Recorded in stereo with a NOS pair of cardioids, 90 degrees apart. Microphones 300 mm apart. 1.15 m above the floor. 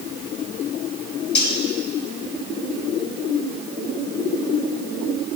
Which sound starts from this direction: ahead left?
Cutlery clinking, at 1.4 s.